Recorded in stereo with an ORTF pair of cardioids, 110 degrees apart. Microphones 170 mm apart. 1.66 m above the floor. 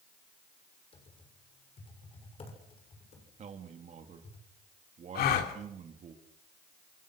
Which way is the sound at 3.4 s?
45° right.